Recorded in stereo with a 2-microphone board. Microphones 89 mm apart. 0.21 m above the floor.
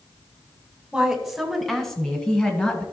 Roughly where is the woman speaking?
Centre.